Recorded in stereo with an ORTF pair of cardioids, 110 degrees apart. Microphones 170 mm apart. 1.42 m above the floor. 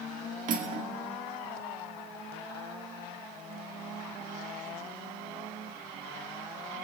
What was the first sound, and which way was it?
Cutlery clinking, 50° right.